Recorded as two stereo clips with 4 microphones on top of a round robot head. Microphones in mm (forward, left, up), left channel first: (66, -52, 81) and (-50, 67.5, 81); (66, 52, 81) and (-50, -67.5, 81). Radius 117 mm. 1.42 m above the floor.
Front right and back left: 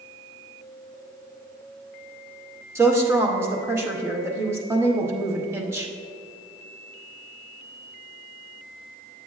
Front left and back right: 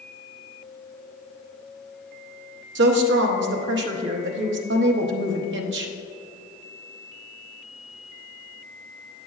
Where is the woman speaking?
150° right, 0.8 m.